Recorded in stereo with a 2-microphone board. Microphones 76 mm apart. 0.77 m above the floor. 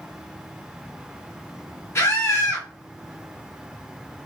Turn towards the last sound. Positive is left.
turn(degrees=40)  # may be behind; listen again after turning